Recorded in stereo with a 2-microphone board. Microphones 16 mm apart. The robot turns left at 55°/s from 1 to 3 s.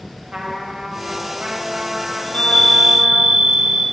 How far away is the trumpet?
About 1.8 m.